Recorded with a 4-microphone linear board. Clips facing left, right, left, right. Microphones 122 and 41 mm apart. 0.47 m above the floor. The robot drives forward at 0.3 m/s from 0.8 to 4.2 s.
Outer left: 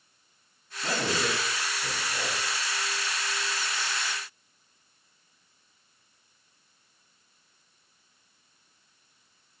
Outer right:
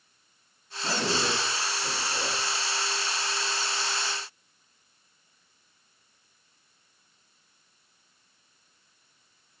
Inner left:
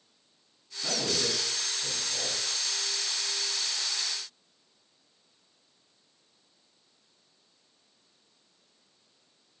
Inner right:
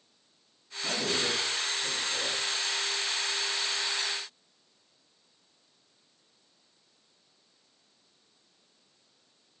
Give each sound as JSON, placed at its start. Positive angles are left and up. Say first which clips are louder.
{"t": 0.8, "sound": "a man speaking", "louder": "even, inner right 1 dB", "side_deg": 65, "distance_m": 2.5}